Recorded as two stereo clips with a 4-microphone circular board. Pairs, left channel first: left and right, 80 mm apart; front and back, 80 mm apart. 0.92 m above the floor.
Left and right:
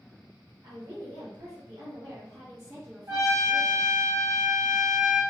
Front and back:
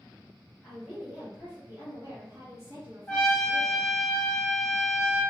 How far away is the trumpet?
About 1.3 m.